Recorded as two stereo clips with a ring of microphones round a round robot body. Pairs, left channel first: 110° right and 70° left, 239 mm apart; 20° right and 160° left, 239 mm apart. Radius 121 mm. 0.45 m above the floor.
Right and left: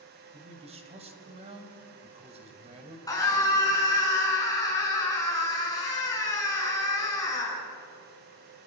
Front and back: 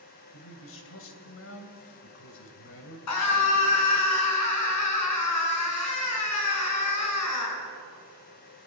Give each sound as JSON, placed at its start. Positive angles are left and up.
{"t": 0.3, "sound": "a man speaking", "azimuth_deg": 5, "distance_m": 3.0}
{"t": 3.1, "sound": "a scream", "azimuth_deg": -35, "distance_m": 5.5}